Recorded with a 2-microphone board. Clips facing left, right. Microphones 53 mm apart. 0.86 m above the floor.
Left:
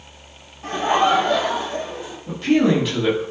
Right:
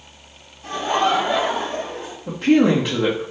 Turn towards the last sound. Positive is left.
turn(degrees=-70)  # may be behind; listen again after turning